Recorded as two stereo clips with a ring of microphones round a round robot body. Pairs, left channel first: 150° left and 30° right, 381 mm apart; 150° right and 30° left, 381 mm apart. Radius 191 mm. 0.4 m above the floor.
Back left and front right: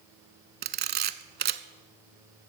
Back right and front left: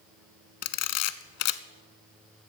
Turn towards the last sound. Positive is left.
turn(degrees=-95)